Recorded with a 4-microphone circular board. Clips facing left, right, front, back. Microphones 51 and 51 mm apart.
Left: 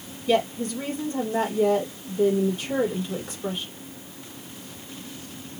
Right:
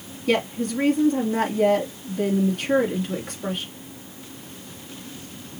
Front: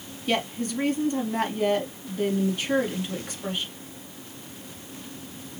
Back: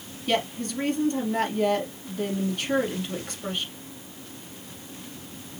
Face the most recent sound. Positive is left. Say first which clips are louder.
# even, even
turn(degrees=-85)